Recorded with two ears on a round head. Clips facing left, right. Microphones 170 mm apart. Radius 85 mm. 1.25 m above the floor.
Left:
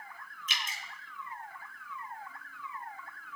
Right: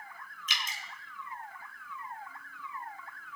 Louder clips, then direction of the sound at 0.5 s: Right 1 dB; 65° right (ahead or behind).